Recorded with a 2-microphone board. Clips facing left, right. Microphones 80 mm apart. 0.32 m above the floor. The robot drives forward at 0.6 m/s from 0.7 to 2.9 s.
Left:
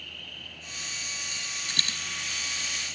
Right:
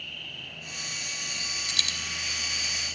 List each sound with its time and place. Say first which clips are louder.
0.0 s an insect: right 2 dB; 40° left (ahead or behind), 6 m; by 3.0 s 50° left (ahead or behind), 5 m
1.7 s a dropped coin: left 2 dB; 40° left (ahead or behind), 1.4 m; by 2.0 s 45° left (ahead or behind), 1.3 m